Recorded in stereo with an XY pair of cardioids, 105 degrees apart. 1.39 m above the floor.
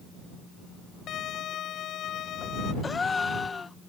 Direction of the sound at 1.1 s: 70° left.